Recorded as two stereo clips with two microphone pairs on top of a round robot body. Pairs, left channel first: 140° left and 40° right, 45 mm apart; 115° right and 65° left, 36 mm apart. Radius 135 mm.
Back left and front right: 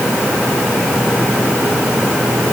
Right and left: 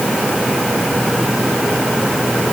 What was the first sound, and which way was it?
Only background noise.